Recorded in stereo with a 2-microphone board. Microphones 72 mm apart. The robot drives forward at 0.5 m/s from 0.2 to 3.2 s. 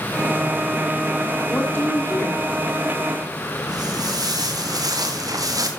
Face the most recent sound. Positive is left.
turn(degrees=-55)  # may be behind; listen again after turning